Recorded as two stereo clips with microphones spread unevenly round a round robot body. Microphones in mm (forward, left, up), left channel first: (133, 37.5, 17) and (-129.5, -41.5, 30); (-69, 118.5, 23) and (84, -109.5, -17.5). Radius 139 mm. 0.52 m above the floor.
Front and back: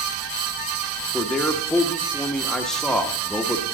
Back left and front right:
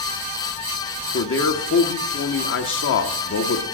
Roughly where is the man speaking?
Left.